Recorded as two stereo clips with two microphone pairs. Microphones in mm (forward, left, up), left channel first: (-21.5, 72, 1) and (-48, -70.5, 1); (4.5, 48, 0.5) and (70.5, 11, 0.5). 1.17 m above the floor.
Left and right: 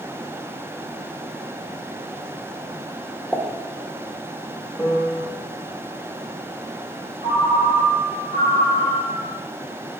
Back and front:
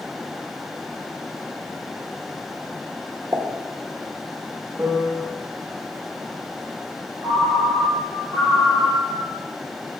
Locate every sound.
3.3 s a pop: 25° right, 0.9 m
4.8 s a piano: 5° left, 0.9 m
7.2 s a ringtone: 65° right, 3 m